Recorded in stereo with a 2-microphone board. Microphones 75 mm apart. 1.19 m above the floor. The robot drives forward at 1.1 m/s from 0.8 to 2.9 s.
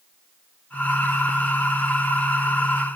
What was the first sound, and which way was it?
Only background noise.